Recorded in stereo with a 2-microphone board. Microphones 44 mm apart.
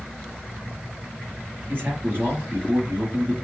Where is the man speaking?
45° right (ahead or behind), 3 m.